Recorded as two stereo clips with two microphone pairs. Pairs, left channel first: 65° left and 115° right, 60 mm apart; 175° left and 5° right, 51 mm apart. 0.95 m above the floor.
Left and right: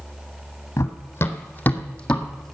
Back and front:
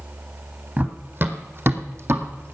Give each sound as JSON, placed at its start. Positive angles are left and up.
{"t": 0.8, "sound": "running footsteps", "azimuth_deg": 35, "distance_m": 1.6}